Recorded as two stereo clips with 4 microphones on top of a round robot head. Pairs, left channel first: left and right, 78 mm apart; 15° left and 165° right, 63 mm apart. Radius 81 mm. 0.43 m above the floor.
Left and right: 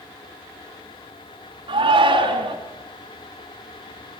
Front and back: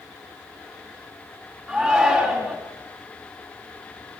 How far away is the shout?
About 4.5 m.